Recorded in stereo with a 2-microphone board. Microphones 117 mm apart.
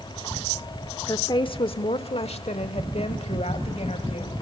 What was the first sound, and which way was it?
A woman speaking, 35° left (ahead or behind).